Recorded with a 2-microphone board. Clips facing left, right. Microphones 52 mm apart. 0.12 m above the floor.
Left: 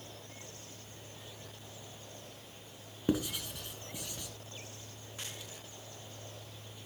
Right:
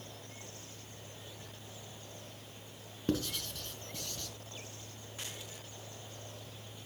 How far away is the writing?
About 1.3 m.